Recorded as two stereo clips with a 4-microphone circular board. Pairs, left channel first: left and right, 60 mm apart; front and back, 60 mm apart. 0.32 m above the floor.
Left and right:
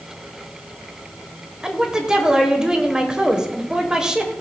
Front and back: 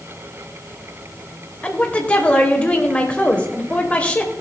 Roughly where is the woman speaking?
Ahead right.